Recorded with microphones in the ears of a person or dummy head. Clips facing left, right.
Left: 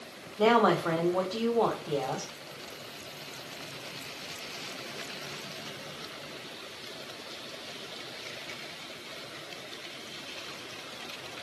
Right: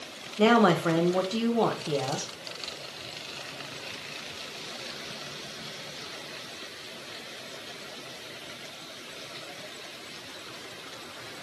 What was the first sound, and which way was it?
A woman speaking, 30° right (ahead or behind).